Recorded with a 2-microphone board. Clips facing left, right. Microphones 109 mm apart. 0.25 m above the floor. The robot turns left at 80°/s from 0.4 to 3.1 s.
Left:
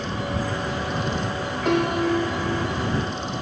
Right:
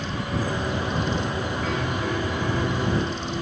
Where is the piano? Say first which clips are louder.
Left 11 dB; 80° left; by 3.4 s 35° right.